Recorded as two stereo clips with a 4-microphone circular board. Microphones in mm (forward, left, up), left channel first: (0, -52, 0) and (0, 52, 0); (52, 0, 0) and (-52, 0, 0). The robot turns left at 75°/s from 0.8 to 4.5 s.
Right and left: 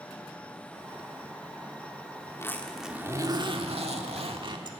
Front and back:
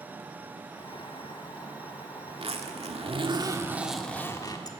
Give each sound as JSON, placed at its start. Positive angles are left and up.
{"t": 2.3, "sound": "a zipper", "azimuth_deg": -145, "distance_m": 1.7}